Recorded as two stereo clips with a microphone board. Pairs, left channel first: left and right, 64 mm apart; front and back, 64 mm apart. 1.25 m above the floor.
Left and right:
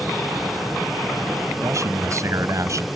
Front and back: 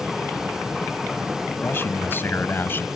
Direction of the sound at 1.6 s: 55° right.